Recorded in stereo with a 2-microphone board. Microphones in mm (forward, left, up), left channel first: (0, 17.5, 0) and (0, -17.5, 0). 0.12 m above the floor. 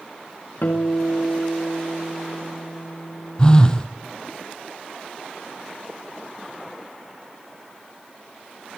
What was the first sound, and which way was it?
A guitar, 70° left (ahead or behind).